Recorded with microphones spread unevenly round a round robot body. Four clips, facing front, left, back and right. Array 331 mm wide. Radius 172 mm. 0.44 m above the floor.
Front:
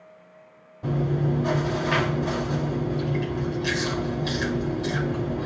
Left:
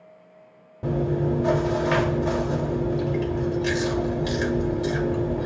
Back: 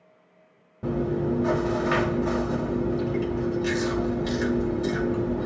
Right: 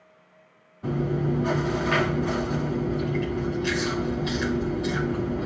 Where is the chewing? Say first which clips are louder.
Left 2 dB, even; 115° left, 1.9 m.